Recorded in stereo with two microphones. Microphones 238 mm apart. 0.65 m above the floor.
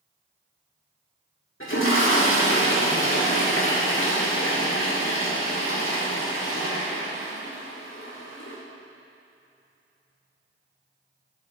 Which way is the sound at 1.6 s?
60° left (ahead or behind).